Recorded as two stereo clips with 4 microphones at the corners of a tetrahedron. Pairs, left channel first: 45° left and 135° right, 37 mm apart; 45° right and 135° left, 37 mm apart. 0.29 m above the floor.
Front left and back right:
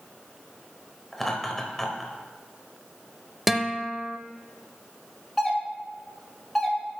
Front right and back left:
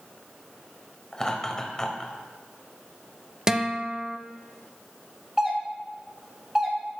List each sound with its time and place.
1.1 s laughter: 15° right, 1.0 m
3.5 s a guitar: 145° left, 0.6 m
5.4 s a doorbell: 110° left, 1.5 m